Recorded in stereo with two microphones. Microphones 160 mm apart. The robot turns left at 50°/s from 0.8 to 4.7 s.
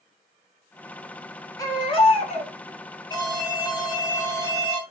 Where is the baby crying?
155° left, 1.2 m; by 2.5 s 110° left, 1.2 m.